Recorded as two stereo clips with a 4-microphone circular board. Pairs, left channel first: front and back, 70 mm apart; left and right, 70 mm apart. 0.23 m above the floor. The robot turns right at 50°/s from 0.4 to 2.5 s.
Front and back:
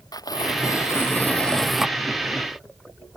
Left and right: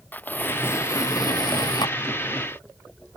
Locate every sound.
0.1 s tearing paper: 25° left; by 2.0 s 105° left